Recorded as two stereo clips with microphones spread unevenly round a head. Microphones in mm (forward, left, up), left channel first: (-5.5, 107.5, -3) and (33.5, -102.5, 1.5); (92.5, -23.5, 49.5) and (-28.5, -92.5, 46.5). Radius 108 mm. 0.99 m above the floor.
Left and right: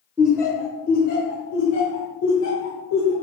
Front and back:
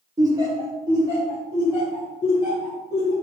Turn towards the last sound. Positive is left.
turn(degrees=135)